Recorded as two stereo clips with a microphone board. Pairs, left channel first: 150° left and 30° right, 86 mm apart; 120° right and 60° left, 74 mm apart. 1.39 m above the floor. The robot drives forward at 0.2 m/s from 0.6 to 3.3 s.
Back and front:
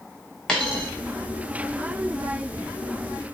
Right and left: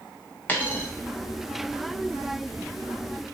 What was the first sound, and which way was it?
A dropped coin, 150° right.